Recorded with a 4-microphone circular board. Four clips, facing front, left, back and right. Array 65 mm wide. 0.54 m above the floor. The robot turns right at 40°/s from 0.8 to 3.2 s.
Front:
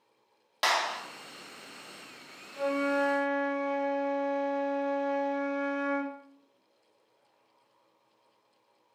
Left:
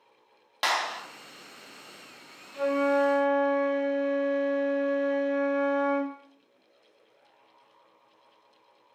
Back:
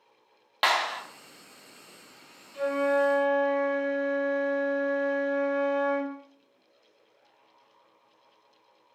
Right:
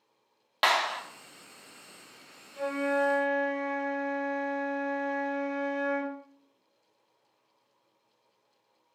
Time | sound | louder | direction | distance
0.6 | a clap | right 2 dB, back 3 dB | 145° right | 0.6 m
2.5 | a flute | left 4 dB, back 3 dB | 90° left | 1.8 m